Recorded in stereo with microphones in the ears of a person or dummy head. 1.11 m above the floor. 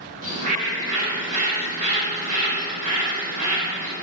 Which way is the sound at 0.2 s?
45° right (ahead or behind).